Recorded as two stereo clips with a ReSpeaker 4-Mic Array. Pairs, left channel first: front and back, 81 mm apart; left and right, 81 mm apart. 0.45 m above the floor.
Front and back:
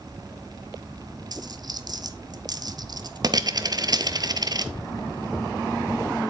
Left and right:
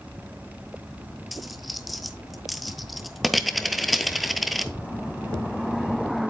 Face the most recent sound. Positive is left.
turn(degrees=180)